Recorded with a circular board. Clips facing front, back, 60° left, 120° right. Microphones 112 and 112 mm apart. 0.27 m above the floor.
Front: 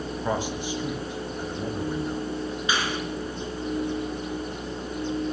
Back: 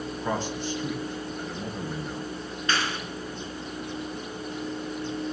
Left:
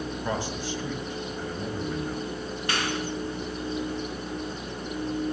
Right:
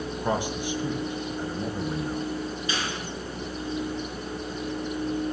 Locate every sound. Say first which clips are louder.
0.2 s a man speaking: front 1 dB, right 5 dB; 60° right, 1.6 m
2.7 s a clap: even, left 2 dB; 80° left, 3.5 m